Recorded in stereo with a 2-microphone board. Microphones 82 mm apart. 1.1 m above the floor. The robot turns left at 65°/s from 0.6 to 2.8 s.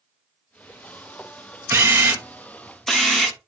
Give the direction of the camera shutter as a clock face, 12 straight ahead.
4 o'clock.